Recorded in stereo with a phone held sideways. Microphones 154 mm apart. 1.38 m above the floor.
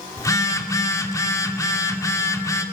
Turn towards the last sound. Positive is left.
turn(degrees=20)  # may be behind; listen again after turning